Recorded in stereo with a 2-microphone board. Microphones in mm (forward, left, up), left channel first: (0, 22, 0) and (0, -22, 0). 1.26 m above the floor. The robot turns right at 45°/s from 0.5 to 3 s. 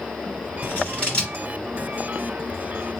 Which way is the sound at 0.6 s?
40° left (ahead or behind).